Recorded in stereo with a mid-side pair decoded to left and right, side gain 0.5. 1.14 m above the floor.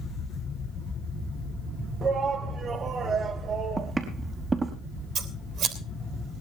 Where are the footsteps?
30° right, 4.5 m.